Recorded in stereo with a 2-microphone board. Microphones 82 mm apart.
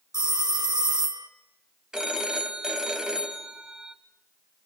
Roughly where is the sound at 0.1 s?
Right.